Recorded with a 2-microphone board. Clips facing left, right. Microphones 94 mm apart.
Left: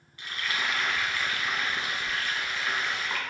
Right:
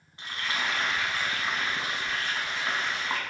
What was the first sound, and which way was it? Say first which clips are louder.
Frying: even; 30° right (ahead or behind).